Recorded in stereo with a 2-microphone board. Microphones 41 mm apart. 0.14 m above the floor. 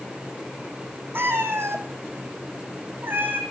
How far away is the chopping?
No chopping in this recording.